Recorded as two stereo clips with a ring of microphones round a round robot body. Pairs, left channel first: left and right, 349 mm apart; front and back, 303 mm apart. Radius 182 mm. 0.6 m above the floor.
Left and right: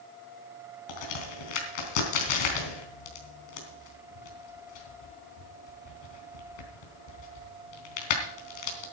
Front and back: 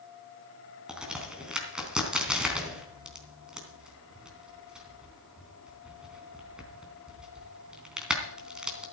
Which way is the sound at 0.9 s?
95° left.